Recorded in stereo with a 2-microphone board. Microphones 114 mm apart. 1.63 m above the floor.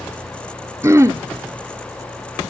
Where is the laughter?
I don't hear laughter.